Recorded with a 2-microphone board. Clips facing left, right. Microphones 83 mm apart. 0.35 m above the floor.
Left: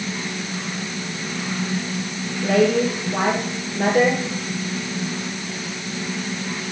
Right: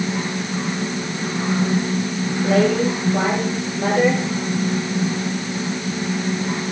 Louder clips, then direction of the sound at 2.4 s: Even; 70° left (ahead or behind).